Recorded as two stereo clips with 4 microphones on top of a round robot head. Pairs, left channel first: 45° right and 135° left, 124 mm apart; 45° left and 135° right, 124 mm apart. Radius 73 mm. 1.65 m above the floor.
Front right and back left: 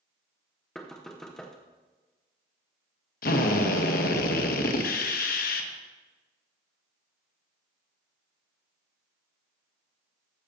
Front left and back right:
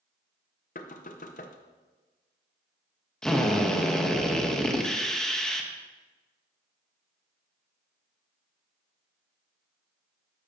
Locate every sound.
0.8 s knocking: 45° left, 0.8 m
3.2 s a drill: 40° right, 1.1 m